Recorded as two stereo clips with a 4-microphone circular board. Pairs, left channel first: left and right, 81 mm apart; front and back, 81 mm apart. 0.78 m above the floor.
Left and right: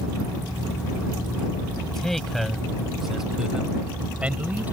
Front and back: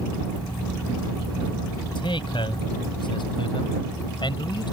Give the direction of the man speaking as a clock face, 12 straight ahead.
12 o'clock.